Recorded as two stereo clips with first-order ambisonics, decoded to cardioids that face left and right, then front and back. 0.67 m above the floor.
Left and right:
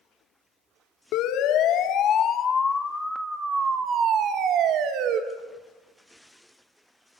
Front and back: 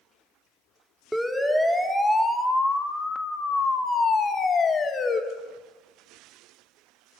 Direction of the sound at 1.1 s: 95° left.